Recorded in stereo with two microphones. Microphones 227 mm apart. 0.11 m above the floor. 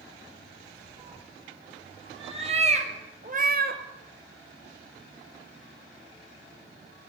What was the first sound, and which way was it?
A cat meowing, 20° right (ahead or behind).